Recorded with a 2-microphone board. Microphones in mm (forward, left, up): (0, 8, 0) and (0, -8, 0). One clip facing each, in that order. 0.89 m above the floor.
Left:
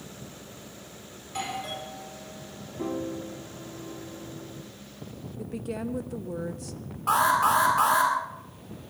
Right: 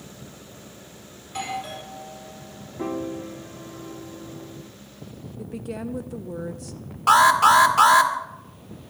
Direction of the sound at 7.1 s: 60° right (ahead or behind).